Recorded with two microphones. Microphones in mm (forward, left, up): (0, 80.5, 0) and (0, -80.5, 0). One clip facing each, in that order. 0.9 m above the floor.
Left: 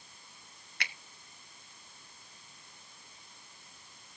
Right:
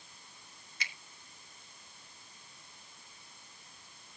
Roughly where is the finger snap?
Left.